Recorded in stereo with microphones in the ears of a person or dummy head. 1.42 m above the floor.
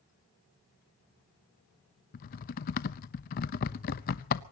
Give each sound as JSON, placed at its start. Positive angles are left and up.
{"t": 2.1, "sound": "typing on a keyboard", "side_deg": 45, "distance_m": 0.8}